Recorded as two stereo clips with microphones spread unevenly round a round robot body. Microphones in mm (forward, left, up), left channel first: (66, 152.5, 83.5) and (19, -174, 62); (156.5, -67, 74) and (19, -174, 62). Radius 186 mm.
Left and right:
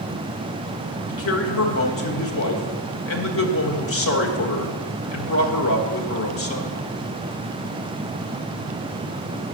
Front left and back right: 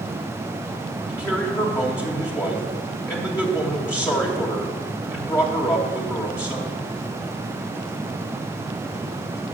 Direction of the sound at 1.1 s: 115° left.